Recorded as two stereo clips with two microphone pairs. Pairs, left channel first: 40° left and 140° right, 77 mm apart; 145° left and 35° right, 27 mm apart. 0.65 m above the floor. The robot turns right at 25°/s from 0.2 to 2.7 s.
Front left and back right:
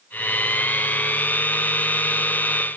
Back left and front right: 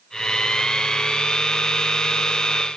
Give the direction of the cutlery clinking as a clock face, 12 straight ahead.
No cutlery clinking in this recording.